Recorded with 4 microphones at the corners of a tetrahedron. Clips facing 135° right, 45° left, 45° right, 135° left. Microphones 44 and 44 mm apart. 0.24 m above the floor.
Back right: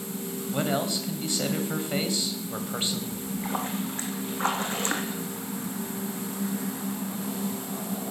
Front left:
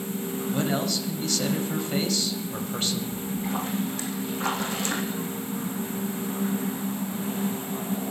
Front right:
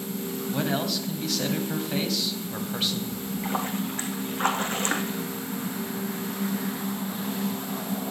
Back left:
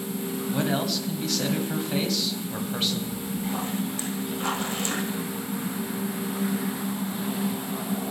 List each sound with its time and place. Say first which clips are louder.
0.5 s a man speaking: even, back left 1 dB; 135° right, 1.6 m
3.1 s a splash: front left 1 dB, front right 1 dB; 85° right, 2.5 m